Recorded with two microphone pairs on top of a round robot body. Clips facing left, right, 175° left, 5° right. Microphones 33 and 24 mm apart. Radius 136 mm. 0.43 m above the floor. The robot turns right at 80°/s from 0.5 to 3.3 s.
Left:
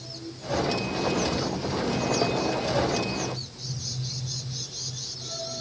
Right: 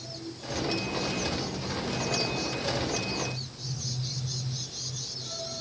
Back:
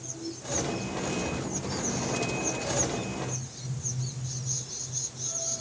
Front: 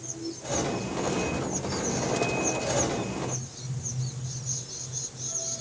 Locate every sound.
Only background noise.